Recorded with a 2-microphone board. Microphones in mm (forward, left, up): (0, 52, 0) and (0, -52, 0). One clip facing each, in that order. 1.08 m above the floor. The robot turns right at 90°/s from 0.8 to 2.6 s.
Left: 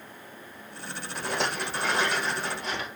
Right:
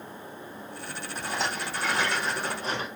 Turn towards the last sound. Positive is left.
turn(degrees=-145)